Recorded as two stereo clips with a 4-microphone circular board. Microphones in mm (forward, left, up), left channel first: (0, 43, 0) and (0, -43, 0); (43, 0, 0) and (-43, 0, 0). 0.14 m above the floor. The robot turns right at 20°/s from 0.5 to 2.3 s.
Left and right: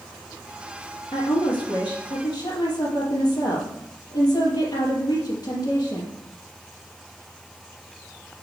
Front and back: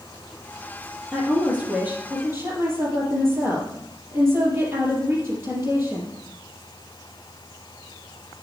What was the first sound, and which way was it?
A woman speaking, 95° left.